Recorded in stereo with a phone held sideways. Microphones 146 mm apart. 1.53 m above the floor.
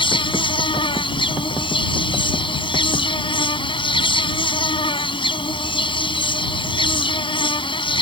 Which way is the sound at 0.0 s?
35° left (ahead or behind).